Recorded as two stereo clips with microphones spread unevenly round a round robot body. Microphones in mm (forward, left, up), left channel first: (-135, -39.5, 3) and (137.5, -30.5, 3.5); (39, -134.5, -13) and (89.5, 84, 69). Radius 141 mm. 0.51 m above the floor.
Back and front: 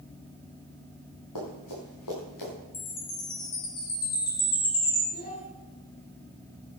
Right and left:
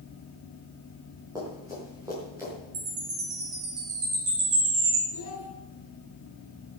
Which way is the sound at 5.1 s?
120° right.